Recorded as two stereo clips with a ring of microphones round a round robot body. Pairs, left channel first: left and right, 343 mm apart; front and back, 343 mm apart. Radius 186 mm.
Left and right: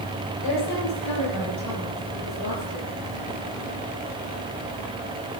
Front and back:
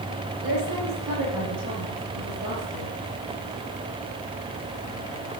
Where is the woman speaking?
130° left, 9 m.